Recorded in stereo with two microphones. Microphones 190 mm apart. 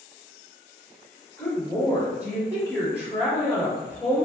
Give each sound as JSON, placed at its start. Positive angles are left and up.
{"t": 1.4, "sound": "a woman speaking", "side_deg": 20, "distance_m": 1.3}